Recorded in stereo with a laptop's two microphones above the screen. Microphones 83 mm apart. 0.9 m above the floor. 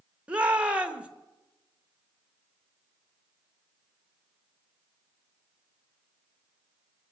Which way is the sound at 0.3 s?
15° right (ahead or behind).